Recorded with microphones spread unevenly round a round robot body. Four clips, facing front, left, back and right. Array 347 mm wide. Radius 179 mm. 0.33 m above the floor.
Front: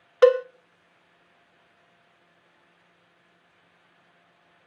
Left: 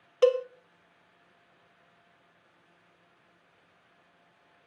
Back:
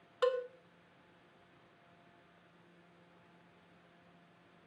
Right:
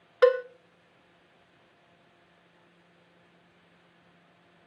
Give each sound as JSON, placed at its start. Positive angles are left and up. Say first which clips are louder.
{"t": 0.2, "sound": "a cowbell", "louder": "right 2 dB, front 16 dB", "azimuth_deg": 0, "distance_m": 0.5}